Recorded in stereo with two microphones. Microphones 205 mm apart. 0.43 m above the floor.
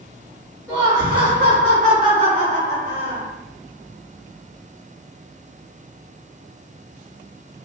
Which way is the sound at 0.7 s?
10° right (ahead or behind).